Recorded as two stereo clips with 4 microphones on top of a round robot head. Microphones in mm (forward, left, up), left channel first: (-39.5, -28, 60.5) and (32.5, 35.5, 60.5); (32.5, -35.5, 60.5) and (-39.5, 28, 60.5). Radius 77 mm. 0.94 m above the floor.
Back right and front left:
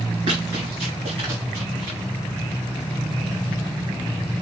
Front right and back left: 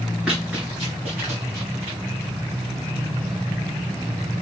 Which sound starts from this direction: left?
Running footsteps, at 0.3 s.